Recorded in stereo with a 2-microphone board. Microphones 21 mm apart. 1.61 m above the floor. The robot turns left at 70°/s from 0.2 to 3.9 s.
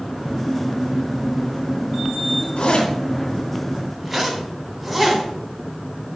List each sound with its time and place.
2.6 s a zipper: 55° left (ahead or behind), 2.5 m; by 5.2 s centre (ahead or behind), 2.5 m